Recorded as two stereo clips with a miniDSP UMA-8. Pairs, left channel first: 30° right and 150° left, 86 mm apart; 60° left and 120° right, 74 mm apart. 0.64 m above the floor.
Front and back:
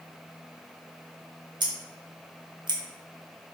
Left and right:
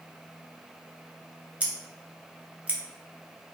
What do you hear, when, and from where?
1.6 s scissors: 165° left, 0.6 m